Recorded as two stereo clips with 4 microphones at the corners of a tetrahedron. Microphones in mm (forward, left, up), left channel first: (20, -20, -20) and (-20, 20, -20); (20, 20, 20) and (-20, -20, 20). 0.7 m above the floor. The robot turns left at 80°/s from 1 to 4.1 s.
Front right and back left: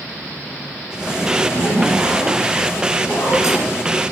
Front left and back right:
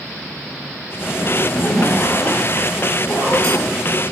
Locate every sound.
1.3 s a zipper: 150° left, 5 m; by 3.8 s 45° right, 5 m